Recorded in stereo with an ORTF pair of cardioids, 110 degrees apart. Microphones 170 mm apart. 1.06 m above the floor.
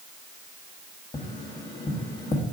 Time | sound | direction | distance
1.1 | tapping | 25° left | 1.0 m